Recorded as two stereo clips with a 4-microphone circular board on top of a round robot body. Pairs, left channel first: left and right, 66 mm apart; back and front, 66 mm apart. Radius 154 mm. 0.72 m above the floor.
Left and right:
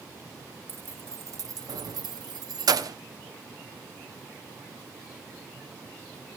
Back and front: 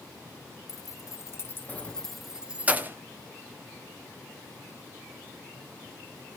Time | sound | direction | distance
0.7 | keys jangling | 150° right | 1.2 m